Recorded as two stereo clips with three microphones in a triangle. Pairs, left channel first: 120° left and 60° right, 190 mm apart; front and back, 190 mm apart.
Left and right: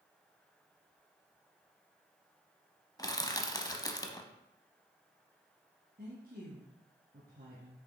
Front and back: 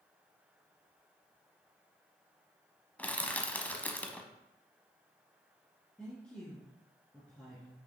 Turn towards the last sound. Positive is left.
turn(degrees=-85)